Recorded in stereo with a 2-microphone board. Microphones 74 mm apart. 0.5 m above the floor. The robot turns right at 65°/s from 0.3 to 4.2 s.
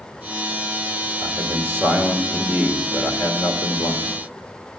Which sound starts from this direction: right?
A man speaking, at 1.2 s.